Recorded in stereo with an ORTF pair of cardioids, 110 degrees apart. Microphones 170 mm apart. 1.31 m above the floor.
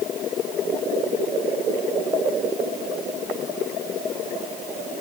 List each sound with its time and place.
Only background noise.